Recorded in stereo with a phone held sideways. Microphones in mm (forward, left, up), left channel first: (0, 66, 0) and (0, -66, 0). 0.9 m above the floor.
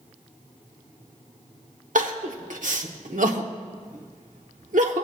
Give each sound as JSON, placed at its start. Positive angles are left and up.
{"t": 1.9, "sound": "crying", "side_deg": -75, "distance_m": 1.0}